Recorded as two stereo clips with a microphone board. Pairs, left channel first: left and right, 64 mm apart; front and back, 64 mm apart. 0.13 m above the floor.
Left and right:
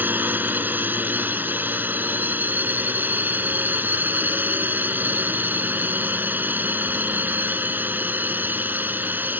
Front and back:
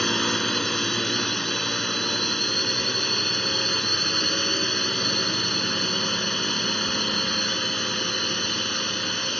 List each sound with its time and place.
0.0 s a drone: 80° right